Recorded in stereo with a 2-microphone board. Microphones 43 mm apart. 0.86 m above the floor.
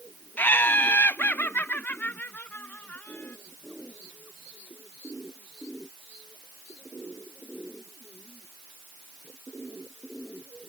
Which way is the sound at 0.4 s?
50° left (ahead or behind).